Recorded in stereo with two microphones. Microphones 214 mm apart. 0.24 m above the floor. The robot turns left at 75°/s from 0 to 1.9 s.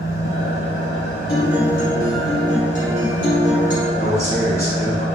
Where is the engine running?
140° left, 1.7 m; by 5.2 s 5° right, 1.7 m.